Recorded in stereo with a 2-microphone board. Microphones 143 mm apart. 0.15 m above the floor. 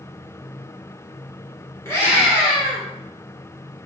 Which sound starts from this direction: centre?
A scream, at 1.9 s.